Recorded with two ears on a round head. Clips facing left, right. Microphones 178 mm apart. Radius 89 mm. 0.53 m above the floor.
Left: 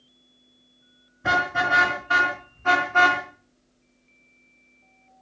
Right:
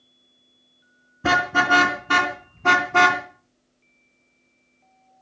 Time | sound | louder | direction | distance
1.2 | a car horn | right 4 dB | 65° right (ahead or behind) | 4 m